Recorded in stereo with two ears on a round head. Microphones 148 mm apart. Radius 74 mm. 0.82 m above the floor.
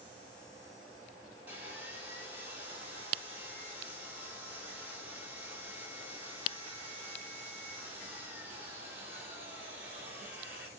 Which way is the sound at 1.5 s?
10° right (ahead or behind).